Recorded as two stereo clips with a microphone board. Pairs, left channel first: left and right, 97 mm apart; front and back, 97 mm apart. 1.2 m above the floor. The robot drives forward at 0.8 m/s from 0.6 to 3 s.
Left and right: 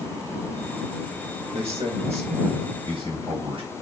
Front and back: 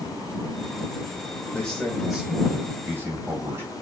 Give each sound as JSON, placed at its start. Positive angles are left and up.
{"t": 1.5, "sound": "a man speaking", "azimuth_deg": -75, "distance_m": 1.8}